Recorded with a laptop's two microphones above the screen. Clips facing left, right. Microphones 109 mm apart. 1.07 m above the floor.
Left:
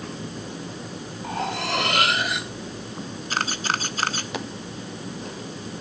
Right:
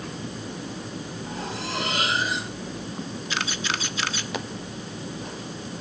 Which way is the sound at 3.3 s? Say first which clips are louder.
Left 4 dB; 45° left (ahead or behind).